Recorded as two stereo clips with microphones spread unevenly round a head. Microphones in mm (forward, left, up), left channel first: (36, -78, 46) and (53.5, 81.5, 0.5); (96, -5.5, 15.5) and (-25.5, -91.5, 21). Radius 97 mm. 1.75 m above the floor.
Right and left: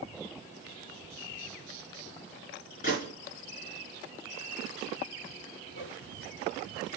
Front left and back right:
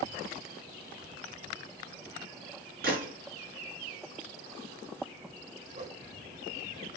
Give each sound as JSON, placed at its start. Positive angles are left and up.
{"t": 2.8, "sound": "a gunshot", "azimuth_deg": -135, "distance_m": 4.5}
{"t": 5.7, "sound": "a whoosh", "azimuth_deg": -115, "distance_m": 3.5}